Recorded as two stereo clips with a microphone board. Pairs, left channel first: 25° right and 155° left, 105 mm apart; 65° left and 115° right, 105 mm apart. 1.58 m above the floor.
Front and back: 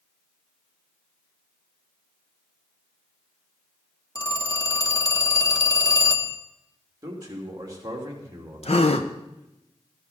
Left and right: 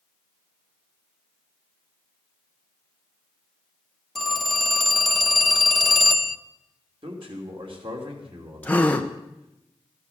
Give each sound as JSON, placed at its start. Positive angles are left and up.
{"t": 4.2, "sound": "a phone ringing", "azimuth_deg": -20, "distance_m": 0.8}
{"t": 7.0, "sound": "a man speaking", "azimuth_deg": -145, "distance_m": 3.0}
{"t": 8.6, "sound": "a gasp", "azimuth_deg": -10, "distance_m": 0.9}